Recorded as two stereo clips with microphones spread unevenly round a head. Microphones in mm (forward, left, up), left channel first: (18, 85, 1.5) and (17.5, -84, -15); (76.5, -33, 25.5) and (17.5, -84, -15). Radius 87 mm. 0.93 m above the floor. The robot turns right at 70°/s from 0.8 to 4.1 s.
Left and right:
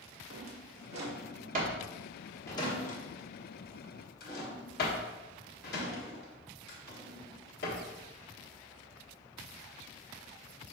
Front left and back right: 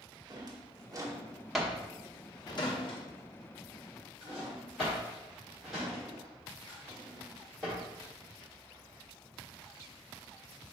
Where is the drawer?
105° right, 1.1 m; by 7.8 s 130° left, 1.1 m.